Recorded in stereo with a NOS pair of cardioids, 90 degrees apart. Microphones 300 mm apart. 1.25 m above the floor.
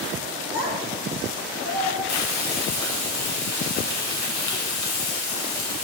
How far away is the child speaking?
About 1.2 m.